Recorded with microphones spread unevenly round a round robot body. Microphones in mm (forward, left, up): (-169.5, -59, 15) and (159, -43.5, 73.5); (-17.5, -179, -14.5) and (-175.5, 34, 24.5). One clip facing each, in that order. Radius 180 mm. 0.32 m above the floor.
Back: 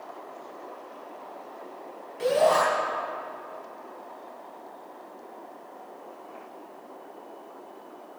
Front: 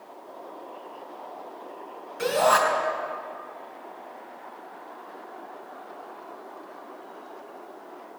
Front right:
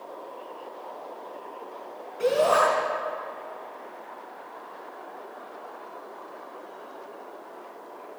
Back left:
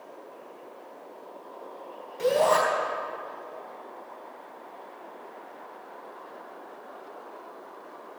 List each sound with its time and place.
2.2 s a shout: 75° left, 3.5 m